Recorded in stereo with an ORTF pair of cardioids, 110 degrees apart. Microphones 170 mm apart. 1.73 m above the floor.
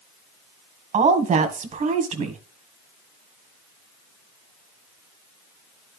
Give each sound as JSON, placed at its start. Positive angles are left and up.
{"t": 0.9, "sound": "a woman speaking", "azimuth_deg": -45, "distance_m": 1.7}